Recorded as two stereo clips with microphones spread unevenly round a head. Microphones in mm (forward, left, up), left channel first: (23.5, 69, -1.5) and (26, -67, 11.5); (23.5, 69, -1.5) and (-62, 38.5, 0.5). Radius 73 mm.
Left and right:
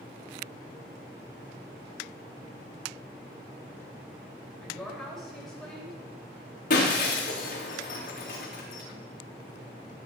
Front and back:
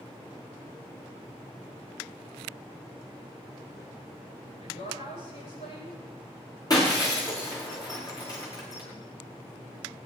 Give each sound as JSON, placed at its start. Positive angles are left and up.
{"t": 4.6, "sound": "a woman speaking", "azimuth_deg": 5, "distance_m": 8.5}
{"t": 6.7, "sound": "breaking glass", "azimuth_deg": 65, "distance_m": 5.5}